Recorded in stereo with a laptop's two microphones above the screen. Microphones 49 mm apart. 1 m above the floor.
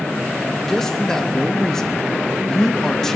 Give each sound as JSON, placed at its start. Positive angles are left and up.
{"t": 0.7, "sound": "a man speaking", "side_deg": 10, "distance_m": 1.1}